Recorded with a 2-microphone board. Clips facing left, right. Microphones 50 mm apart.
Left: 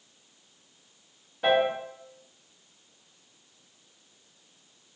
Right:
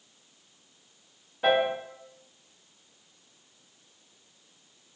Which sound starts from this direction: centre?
A piano, at 1.4 s.